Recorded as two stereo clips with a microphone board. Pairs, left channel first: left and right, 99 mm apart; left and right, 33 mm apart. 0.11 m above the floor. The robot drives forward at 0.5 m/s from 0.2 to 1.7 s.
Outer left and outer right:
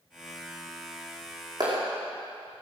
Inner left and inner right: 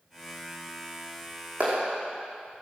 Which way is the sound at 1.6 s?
45° right (ahead or behind).